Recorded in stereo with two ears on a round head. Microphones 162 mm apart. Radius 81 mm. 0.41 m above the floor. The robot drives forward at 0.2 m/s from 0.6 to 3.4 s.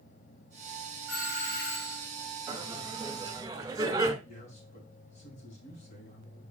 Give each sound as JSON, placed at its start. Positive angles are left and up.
{"t": 1.1, "sound": "a doorbell", "side_deg": 45, "distance_m": 4.5}
{"t": 2.5, "sound": "laughter", "side_deg": -20, "distance_m": 2.0}
{"t": 4.2, "sound": "a man speaking", "side_deg": 40, "distance_m": 3.5}